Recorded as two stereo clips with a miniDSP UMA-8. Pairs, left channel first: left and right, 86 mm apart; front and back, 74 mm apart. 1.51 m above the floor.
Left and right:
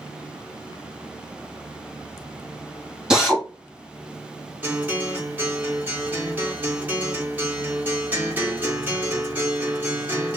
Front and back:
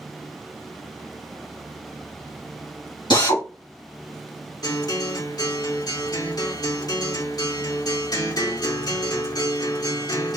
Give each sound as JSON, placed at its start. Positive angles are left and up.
{"t": 3.1, "sound": "a drill", "azimuth_deg": -10, "distance_m": 2.5}
{"t": 4.6, "sound": "a guitar", "azimuth_deg": -20, "distance_m": 3.5}